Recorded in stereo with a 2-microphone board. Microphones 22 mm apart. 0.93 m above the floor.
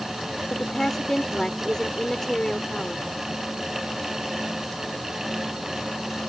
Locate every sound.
0.5 s a woman speaking: 25° left (ahead or behind)